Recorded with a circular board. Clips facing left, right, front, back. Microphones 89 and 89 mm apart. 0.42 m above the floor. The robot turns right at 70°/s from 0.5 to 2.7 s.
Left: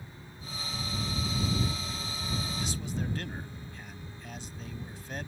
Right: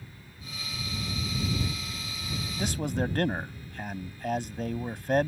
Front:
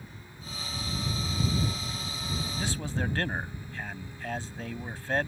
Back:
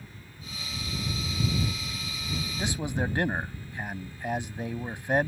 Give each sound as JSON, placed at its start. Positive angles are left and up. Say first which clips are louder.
{"t": 2.6, "sound": "a man speaking", "louder": "right 6 dB, back 4 dB", "azimuth_deg": -115}